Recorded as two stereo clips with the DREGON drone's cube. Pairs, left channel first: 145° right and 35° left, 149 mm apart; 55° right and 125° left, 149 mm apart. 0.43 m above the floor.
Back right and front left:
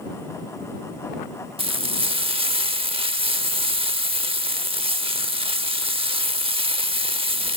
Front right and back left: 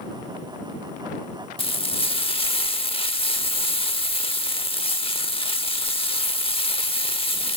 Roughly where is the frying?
Ahead.